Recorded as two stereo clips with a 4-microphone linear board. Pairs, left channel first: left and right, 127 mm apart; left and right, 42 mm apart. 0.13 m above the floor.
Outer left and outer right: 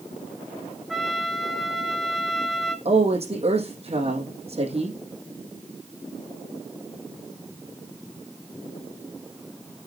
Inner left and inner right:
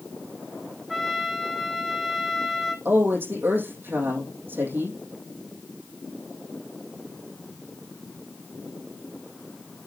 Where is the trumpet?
Centre (ahead or behind), 1.3 m.